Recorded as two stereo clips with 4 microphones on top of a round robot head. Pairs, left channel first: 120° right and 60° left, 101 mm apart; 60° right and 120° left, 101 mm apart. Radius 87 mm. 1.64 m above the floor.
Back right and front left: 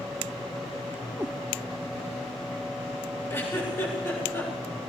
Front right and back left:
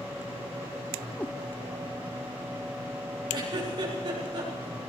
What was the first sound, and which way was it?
A cat meowing, 5° left.